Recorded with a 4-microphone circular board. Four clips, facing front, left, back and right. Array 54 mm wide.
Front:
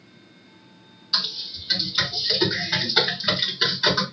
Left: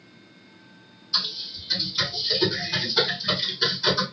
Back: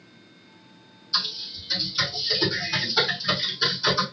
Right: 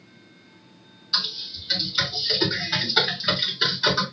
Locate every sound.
1.1 s typing on a keyboard: 30° right, 1.5 m